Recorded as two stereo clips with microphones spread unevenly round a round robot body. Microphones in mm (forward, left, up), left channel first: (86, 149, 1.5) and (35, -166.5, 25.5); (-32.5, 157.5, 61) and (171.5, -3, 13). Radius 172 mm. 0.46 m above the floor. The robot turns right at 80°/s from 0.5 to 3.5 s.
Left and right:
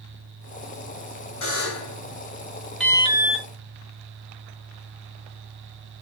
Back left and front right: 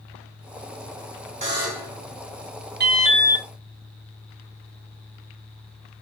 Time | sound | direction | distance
1.4 | a buzzer | 30° left | 1.5 m
2.8 | an alarm | 5° right | 0.9 m